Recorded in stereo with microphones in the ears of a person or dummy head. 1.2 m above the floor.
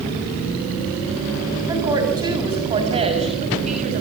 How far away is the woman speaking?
About 7 m.